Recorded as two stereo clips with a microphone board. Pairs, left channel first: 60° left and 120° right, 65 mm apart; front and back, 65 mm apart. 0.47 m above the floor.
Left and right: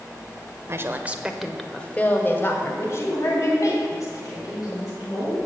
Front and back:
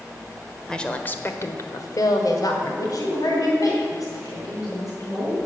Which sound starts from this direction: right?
A woman speaking, at 0.7 s.